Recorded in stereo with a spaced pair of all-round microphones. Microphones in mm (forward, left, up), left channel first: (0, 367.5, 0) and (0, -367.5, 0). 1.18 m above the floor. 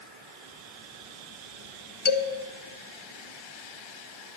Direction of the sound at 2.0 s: 60° left (ahead or behind).